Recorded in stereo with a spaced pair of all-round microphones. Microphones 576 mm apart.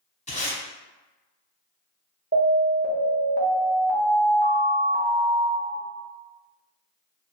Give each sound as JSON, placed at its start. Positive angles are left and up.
{"t": 0.3, "sound": "tape being pulled", "side_deg": 10, "distance_m": 0.7}
{"t": 2.3, "sound": "an alarm", "side_deg": -20, "distance_m": 0.6}